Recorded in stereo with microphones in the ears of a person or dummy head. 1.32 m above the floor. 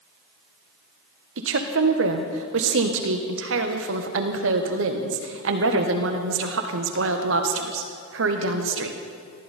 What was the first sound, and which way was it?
A woman speaking, 65° right (ahead or behind).